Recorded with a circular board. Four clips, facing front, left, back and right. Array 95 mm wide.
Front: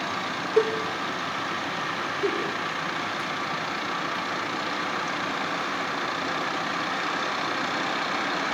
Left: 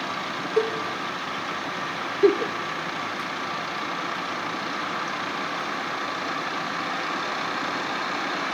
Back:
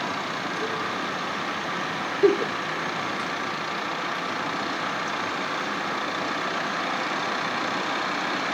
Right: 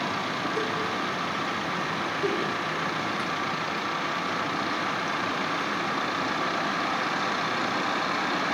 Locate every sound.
0.6 s a cowbell: 35° left, 1.1 m
2.2 s a giggle: 125° left, 1.5 m